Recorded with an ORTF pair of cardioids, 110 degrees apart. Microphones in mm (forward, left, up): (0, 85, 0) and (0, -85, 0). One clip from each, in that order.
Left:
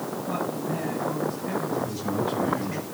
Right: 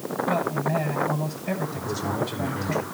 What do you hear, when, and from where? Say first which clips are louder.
0.3 s a man speaking: right 5 dB; 60° right, 9 m
1.8 s a man speaking: even; 65° right, 6 m